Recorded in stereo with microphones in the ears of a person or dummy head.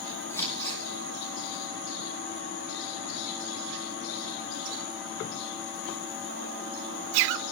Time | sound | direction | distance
0.3 | scissors | 10° left (ahead or behind) | 9.5 m